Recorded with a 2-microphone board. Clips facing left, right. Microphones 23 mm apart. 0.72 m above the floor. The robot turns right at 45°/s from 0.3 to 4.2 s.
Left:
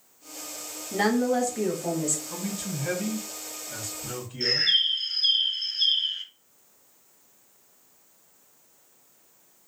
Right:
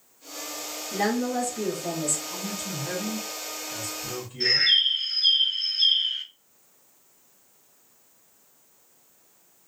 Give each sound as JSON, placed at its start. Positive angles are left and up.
{"t": 0.9, "sound": "a woman speaking", "azimuth_deg": 90, "distance_m": 0.9}
{"t": 2.3, "sound": "a man speaking", "azimuth_deg": 80, "distance_m": 1.1}
{"t": 4.4, "sound": "a bird", "side_deg": -55, "distance_m": 1.7}